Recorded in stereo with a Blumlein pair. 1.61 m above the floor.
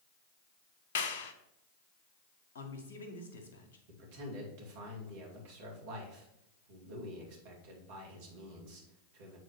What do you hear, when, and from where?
0.9 s a clap: 55° left, 0.8 m
2.5 s a man speaking: 60° left, 1.7 m
3.9 s a man speaking: 50° right, 2.5 m